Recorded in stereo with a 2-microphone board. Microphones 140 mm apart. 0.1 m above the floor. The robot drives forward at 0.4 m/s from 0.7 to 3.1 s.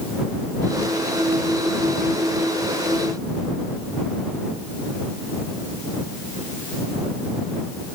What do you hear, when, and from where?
Only background noise.